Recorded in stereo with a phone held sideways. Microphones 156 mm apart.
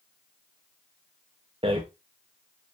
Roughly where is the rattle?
Right.